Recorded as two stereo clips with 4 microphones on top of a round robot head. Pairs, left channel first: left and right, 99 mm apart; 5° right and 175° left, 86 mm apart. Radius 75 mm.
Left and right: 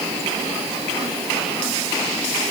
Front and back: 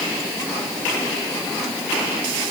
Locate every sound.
Only background noise.